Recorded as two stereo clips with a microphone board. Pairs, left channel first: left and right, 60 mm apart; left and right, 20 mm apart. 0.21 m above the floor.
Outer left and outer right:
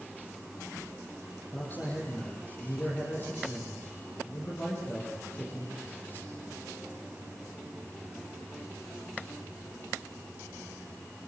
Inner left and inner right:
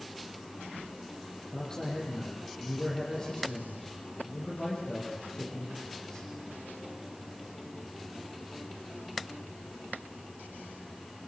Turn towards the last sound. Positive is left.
turn(degrees=30)  # may be behind; listen again after turning